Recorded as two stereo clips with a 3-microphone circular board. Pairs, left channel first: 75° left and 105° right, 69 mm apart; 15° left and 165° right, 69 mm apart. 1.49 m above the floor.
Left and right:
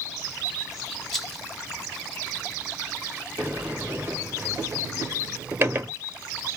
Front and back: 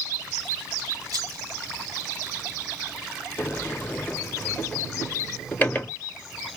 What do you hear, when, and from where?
1.1 s a rattle: 160° left, 2 m
3.4 s a sliding door: 50° right, 1.2 m